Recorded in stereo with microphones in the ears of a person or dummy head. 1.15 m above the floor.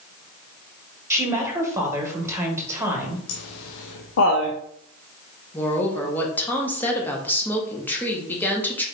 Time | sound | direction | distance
1.1 | a woman speaking | 15° right (ahead or behind) | 1.5 m
3.3 | laughter | 75° left (ahead or behind) | 0.7 m
5.5 | a woman speaking | 10° left (ahead or behind) | 1.0 m